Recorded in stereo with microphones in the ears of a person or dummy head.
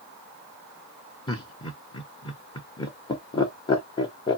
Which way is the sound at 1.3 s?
25° left (ahead or behind).